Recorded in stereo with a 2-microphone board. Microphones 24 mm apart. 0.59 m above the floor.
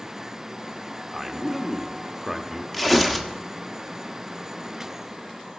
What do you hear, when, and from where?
1.1 s a man speaking: 15° right (ahead or behind), 0.8 m
2.7 s tearing paper: centre (ahead or behind), 1.1 m